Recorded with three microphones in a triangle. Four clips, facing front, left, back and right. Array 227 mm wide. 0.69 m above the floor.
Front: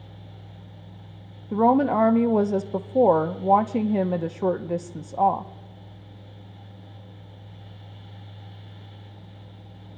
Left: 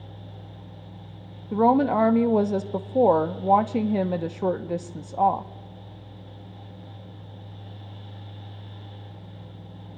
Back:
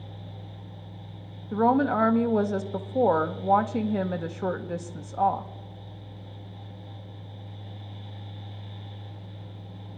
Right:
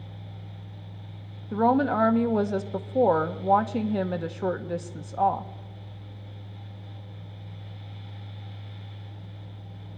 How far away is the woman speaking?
About 0.8 m.